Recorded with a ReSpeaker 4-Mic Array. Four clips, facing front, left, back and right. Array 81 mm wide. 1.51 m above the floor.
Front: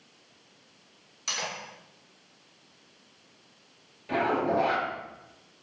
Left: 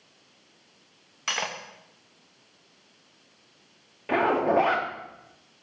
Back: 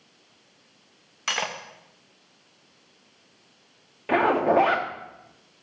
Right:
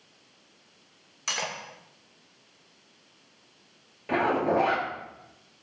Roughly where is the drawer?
I don't hear a drawer.